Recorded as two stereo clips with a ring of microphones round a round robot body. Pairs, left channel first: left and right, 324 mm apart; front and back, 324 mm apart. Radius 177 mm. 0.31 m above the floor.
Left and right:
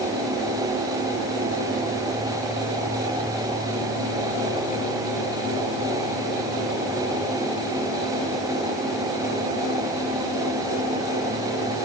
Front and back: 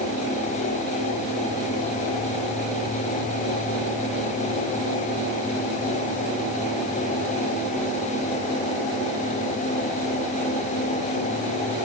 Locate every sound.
Only background noise.